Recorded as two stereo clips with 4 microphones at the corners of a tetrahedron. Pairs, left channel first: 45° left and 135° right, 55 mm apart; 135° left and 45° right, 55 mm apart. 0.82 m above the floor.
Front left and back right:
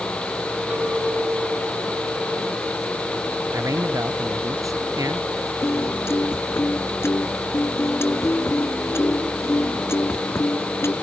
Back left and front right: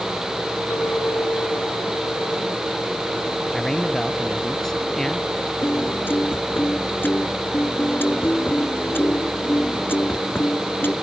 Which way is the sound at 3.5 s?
145° right.